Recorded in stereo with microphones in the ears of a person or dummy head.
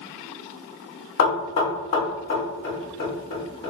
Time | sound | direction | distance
1.2 | knocking | 40° left (ahead or behind) | 1.7 m